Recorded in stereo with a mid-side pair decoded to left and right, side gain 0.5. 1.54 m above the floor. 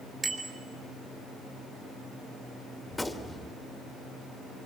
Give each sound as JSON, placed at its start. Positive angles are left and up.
{"t": 0.2, "sound": "a bicycle bell", "azimuth_deg": -25, "distance_m": 3.5}
{"t": 2.9, "sound": "a gunshot", "azimuth_deg": 10, "distance_m": 2.0}